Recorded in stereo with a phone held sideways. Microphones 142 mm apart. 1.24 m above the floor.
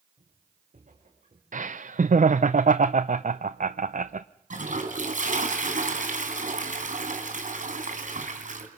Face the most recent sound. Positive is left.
turn(degrees=-65)  # may be behind; listen again after turning